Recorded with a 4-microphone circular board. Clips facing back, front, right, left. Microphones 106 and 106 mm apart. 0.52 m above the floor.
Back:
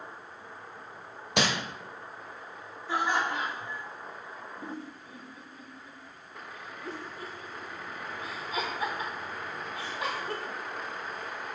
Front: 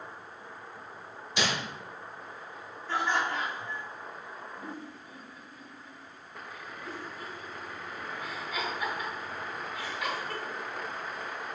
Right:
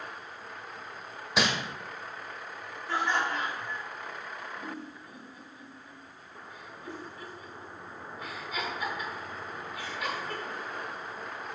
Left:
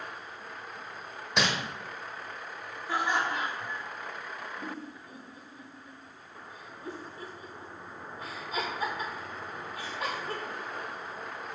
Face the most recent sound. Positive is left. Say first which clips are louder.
# back 2 dB, left 1 dB
turn(degrees=130)